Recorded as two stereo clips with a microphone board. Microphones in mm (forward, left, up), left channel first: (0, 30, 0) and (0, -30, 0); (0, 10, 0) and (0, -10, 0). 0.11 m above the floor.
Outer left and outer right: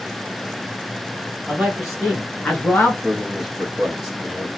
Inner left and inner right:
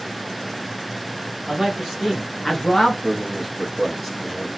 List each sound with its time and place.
1.5 s a man speaking: 15° right (ahead or behind), 1.5 m; by 2.9 s 30° left (ahead or behind), 1.7 m
3.0 s a man speaking: 5° left (ahead or behind), 1.6 m